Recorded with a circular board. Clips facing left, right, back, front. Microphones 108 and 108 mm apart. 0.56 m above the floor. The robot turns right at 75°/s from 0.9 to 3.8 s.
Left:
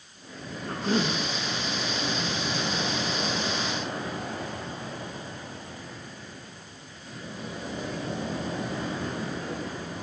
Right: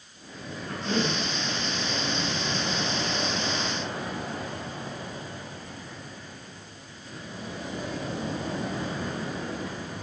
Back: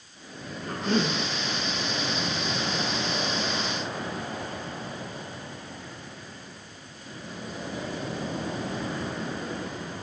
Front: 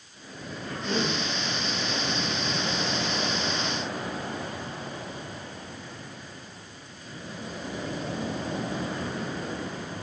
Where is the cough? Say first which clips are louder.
Left 1 dB, back 3 dB; 140° left, 6 m; by 1.2 s 165° left, 6 m.